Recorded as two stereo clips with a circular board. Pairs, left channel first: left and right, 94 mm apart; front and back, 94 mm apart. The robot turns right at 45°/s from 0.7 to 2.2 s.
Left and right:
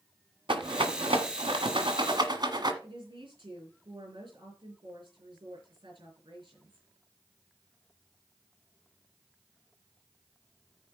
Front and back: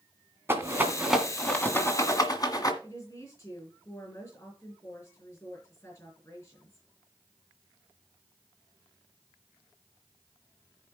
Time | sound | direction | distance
0.5 | a rattle | 115° right | 1.7 m
2.8 | a woman speaking | 55° right | 7 m